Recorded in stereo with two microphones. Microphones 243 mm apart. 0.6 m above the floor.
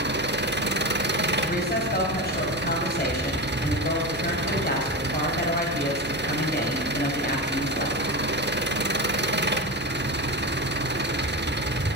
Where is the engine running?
45° right (ahead or behind), 0.7 m.